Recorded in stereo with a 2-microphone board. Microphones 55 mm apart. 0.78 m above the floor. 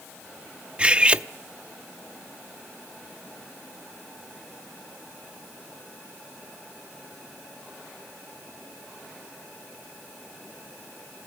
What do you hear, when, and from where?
0.8 s cutlery clinking: 20° right (ahead or behind), 0.5 m